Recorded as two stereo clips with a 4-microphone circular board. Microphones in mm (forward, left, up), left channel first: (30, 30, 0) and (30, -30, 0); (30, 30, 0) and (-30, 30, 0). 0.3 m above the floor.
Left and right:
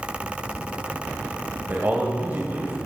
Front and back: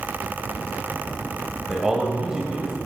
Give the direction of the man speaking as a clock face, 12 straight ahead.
4 o'clock.